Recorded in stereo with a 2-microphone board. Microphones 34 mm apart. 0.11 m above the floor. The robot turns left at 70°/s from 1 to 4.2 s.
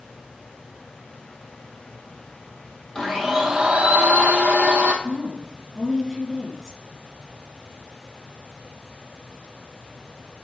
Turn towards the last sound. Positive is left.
turn(degrees=-10)  # may be behind; listen again after turning